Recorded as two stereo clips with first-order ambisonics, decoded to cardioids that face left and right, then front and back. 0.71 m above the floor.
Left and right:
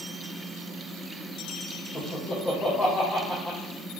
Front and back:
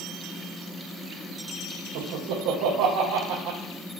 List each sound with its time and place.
1.9 s laughter: 165° left, 2 m